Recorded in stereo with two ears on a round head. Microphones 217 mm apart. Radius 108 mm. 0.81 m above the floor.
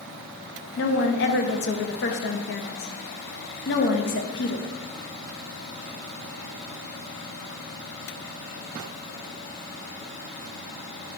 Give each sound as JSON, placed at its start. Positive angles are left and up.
{"t": 0.8, "sound": "a woman speaking", "side_deg": 45, "distance_m": 0.7}